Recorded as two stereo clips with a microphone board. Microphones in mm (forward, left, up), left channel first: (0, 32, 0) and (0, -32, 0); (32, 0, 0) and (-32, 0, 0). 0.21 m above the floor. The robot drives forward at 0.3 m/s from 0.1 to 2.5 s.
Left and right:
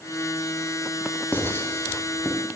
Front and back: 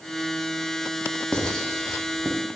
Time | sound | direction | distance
1.3 | writing | 65° left | 0.5 m